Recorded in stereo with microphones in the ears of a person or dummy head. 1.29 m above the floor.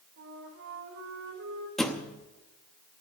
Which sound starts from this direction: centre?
A thud, at 1.8 s.